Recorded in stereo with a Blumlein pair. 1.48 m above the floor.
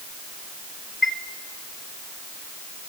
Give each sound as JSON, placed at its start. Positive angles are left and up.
{"t": 1.0, "sound": "a chime", "azimuth_deg": 10, "distance_m": 1.2}